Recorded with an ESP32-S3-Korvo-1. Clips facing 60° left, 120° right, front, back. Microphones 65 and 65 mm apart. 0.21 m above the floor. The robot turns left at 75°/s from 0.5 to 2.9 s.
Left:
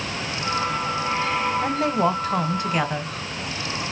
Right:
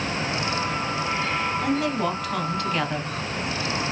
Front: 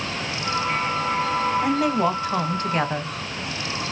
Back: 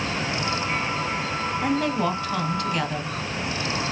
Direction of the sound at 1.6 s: 90° left.